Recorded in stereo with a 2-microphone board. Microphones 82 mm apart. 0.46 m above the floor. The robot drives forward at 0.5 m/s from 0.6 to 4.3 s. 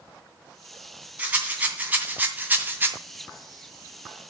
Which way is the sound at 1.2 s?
20° right (ahead or behind).